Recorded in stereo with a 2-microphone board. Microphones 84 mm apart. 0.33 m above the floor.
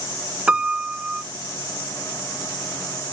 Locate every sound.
0.5 s a piano: 15° right (ahead or behind), 0.5 m